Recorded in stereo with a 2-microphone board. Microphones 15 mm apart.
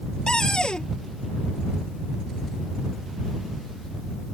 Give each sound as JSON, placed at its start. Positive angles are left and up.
{"t": 0.3, "sound": "a cupboard door", "side_deg": 55}